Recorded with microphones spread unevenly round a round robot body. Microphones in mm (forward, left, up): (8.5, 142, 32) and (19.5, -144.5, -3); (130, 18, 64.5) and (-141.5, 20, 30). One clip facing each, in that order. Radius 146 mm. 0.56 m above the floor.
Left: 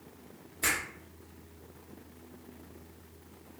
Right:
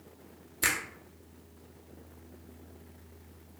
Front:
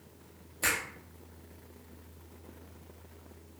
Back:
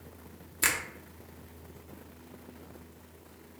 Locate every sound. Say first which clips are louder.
0.6 s a finger snap: even, even; 140° right, 0.7 m